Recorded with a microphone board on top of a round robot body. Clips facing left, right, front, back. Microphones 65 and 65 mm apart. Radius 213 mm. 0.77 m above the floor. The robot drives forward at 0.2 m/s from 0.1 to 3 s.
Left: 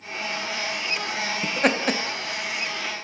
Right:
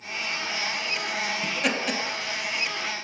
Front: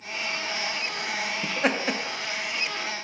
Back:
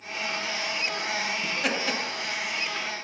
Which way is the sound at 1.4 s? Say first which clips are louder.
Left 7 dB, front 6 dB; 45° left.